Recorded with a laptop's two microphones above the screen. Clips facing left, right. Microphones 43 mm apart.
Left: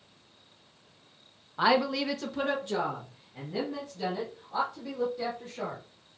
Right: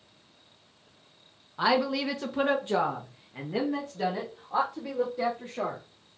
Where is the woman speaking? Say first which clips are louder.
Even; 10° left (ahead or behind), 0.6 m; by 5.8 s 70° right (ahead or behind), 2 m.